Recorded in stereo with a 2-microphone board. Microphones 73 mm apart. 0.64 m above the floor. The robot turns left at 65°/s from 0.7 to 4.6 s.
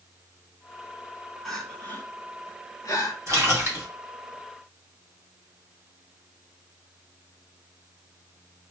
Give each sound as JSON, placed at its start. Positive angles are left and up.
{"t": 1.4, "sound": "crying", "side_deg": 0, "distance_m": 0.7}
{"t": 3.3, "sound": "a splash", "azimuth_deg": -110, "distance_m": 1.6}